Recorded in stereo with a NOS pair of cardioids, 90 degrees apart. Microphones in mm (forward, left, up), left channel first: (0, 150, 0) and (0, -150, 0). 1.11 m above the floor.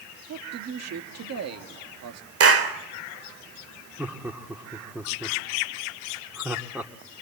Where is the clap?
50° right, 3.5 m.